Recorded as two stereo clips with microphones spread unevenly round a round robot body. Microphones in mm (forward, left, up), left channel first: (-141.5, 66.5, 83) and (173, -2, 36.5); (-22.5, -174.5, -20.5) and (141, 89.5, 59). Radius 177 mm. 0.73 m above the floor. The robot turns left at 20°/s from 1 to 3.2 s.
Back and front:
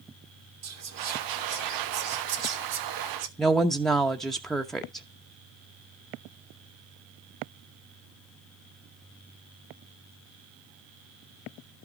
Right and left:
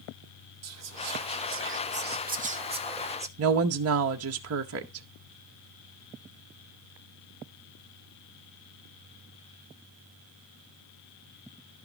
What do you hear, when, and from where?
0.6 s whispering: 15° left, 2.5 m; by 3.3 s 25° right, 2.5 m
3.4 s a woman speaking: 65° left, 0.9 m